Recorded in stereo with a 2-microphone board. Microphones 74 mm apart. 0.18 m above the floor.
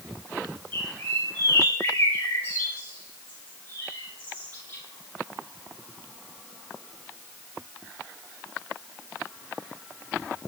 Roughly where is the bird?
Left.